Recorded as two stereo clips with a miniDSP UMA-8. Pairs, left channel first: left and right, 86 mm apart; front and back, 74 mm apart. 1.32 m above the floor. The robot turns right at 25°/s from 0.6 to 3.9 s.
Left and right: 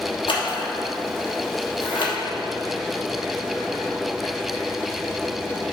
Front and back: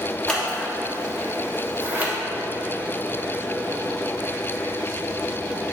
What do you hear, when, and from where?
0.3 s scissors: 75° left, 1.2 m; by 2.1 s 115° left, 1.2 m